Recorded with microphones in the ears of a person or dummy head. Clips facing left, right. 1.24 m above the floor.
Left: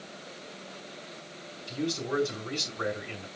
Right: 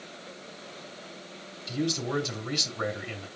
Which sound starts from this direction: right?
A man speaking, at 1.7 s.